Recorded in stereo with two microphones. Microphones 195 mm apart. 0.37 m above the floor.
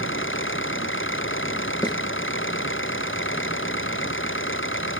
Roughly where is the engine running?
Left.